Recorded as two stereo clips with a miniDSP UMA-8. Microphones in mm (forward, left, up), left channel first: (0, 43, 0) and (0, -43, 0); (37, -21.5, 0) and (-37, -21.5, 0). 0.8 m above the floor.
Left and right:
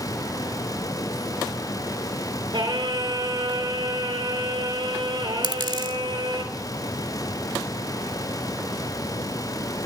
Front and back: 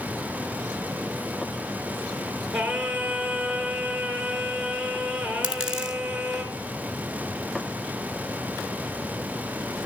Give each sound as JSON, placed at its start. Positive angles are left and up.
{"t": 2.5, "sound": "singing", "azimuth_deg": -90, "distance_m": 2.0}
{"t": 5.4, "sound": "a dropped coin", "azimuth_deg": -105, "distance_m": 1.5}